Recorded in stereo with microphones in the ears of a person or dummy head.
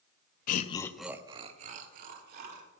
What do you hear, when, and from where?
0.5 s laughter: 50° left (ahead or behind), 0.5 m; by 2.7 s 55° right (ahead or behind), 1.5 m